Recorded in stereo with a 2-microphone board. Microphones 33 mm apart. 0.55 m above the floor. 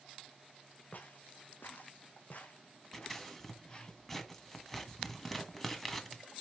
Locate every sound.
0.9 s footsteps: 60° left (ahead or behind), 2 m; by 3.9 s 20° left (ahead or behind), 3.5 m
2.9 s scissors: 10° left (ahead or behind), 1.8 m